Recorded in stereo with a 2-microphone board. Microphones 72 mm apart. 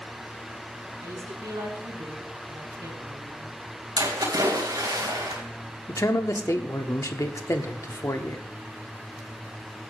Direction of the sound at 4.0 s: 65° right (ahead or behind).